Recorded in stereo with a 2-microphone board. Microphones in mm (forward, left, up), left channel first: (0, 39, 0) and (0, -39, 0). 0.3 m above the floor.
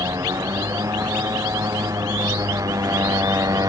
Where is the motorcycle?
45° right (ahead or behind).